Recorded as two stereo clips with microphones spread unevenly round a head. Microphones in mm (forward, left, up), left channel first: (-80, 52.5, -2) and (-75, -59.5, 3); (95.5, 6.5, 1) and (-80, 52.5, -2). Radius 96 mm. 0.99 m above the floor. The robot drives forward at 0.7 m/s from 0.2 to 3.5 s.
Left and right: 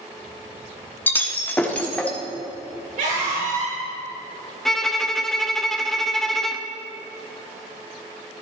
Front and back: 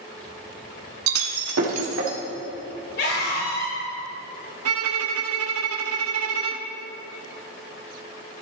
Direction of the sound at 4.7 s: Straight behind.